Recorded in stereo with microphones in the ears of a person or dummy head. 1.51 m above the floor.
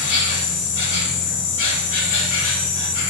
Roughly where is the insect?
Left.